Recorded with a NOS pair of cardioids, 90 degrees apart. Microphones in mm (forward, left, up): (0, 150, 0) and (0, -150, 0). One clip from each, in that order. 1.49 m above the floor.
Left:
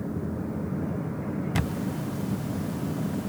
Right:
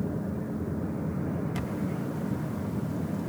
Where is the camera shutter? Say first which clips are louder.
Left 2 dB; 45° left.